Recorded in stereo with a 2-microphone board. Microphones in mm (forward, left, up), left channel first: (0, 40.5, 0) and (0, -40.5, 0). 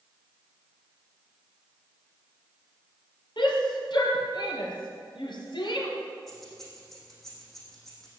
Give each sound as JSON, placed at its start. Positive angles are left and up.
{"t": 3.4, "sound": "a shout", "side_deg": 65, "distance_m": 4.5}
{"t": 6.3, "sound": "keys jangling", "side_deg": 0, "distance_m": 5.5}